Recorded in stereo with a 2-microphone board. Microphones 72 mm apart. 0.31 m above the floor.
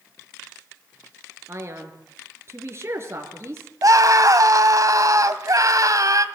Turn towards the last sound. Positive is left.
turn(degrees=-55)  # may be behind; listen again after turning